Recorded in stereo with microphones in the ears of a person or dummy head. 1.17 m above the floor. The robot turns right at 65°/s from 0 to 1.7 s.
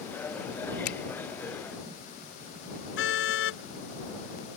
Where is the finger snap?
85° left; by 1.0 s 75° left (ahead or behind).